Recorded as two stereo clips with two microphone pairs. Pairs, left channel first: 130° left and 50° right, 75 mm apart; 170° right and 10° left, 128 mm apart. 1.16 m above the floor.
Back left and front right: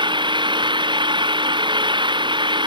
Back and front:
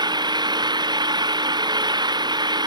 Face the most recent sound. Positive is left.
turn(degrees=-45)